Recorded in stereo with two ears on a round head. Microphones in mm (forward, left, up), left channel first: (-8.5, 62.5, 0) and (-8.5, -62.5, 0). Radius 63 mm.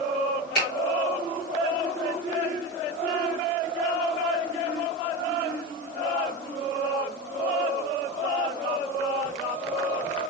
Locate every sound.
0.6 s a finger snap: 75° left (ahead or behind), 1.7 m